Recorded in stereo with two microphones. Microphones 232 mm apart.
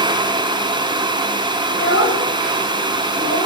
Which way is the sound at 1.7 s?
90° left.